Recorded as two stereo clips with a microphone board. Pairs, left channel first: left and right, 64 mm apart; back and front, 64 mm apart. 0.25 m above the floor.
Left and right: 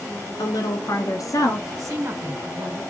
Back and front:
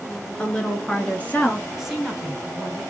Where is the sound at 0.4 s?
105° left, 3 m; by 1.7 s 115° left, 2.5 m.